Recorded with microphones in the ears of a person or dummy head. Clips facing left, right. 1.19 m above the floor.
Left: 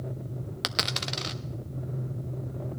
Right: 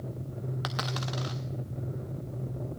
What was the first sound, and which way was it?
A dropped coin, 30° left (ahead or behind).